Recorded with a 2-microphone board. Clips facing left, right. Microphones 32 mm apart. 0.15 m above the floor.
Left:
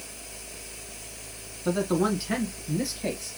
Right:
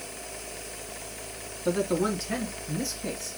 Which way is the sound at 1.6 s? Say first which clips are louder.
Left 1 dB; 5° left (ahead or behind).